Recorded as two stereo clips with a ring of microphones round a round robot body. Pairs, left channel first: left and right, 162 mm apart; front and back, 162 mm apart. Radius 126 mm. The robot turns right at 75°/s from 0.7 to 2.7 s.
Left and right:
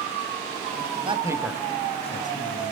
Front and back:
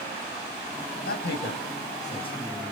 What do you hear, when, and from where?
1.1 s a man speaking: 35° right, 4 m; by 2.7 s 85° left, 4 m